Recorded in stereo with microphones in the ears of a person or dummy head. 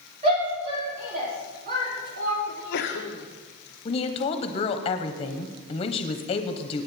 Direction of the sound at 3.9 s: 35° left (ahead or behind).